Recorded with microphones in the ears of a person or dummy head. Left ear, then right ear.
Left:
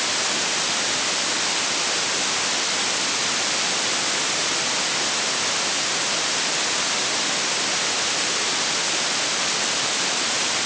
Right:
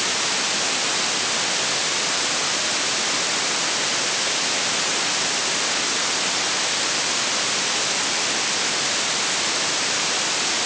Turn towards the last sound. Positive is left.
No sound to turn to.